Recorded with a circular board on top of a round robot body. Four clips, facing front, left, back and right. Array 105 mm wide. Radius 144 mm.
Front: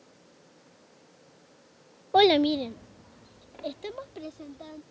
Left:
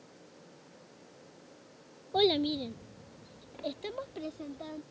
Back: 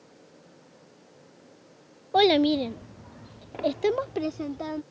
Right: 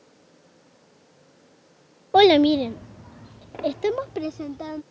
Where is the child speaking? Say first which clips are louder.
Right 13 dB, even; 80° right; by 4.8 s 140° right.